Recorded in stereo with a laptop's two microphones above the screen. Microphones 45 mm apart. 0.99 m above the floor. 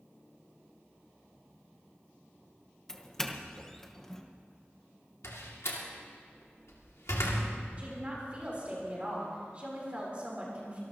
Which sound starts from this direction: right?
A woman speaking, at 7.8 s.